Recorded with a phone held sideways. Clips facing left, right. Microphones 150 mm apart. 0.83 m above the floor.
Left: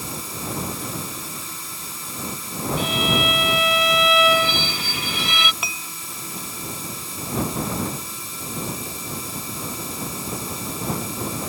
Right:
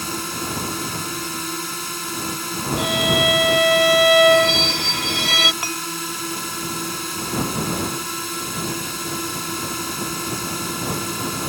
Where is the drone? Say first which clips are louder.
Right 4 dB; 75° right (ahead or behind).